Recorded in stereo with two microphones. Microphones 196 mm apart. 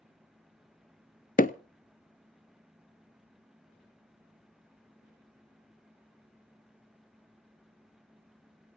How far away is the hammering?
About 0.8 m.